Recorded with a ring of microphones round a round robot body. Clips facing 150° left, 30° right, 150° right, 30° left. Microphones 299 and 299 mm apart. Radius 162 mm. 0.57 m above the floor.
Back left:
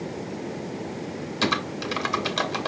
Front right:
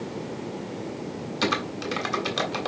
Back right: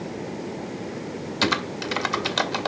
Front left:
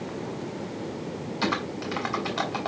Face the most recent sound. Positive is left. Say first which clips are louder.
# even, back right 3 dB
turn(degrees=-125)